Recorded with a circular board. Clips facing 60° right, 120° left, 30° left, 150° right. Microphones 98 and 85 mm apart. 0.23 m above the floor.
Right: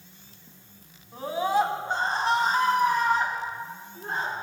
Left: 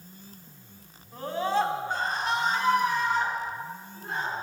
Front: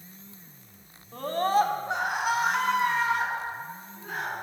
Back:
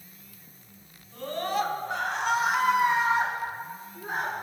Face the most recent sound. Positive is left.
turn(degrees=-105)